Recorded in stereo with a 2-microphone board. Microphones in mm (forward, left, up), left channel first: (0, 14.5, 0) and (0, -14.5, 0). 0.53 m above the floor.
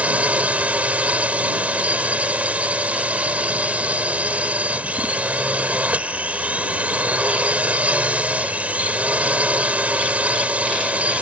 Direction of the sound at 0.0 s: 60° right (ahead or behind).